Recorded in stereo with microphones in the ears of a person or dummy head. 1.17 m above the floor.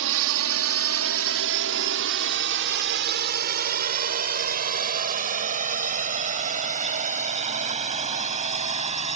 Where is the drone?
65° right (ahead or behind); by 9.2 s 40° right (ahead or behind).